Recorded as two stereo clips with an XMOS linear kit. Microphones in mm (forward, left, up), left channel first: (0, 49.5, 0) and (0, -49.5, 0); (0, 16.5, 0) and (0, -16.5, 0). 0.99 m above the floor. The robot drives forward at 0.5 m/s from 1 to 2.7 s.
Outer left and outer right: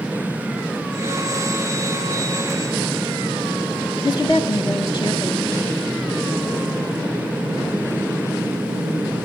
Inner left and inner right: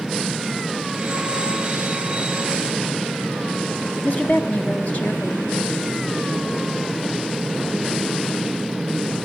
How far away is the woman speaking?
About 1.0 m.